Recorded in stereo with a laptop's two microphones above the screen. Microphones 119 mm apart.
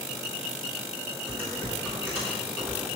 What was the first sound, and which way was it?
Typing on a keyboard, 10° left (ahead or behind).